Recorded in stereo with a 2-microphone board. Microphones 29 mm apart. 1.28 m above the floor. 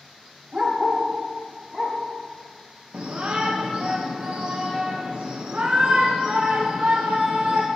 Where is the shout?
50° right (ahead or behind), 0.6 m.